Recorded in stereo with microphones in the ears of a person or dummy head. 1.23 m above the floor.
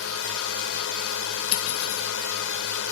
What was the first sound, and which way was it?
A drone, 75° left (ahead or behind).